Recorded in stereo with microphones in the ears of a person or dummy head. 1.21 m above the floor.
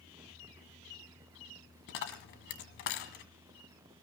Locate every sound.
1.9 s a dropped coin: 60° left (ahead or behind), 2 m